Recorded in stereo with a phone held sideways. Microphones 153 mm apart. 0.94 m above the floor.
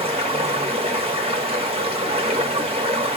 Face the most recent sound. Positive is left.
turn(degrees=-40)  # may be behind; listen again after turning